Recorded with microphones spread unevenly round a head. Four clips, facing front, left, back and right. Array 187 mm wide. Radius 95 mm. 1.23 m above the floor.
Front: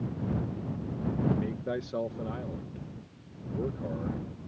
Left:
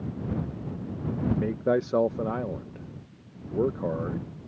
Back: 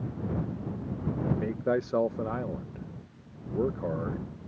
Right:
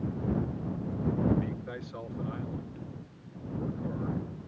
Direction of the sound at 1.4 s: 110° left.